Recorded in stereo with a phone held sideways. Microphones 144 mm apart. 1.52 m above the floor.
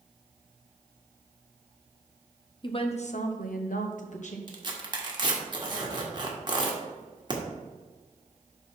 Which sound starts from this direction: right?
Tearing paper, at 4.5 s.